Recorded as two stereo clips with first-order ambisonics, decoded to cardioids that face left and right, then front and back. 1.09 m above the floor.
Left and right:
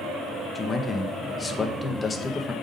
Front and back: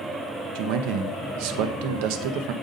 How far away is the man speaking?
About 0.8 m.